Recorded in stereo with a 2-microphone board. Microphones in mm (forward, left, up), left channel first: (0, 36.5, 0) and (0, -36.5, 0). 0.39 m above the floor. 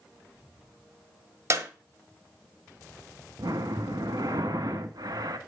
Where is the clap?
45° right (ahead or behind), 1.8 m.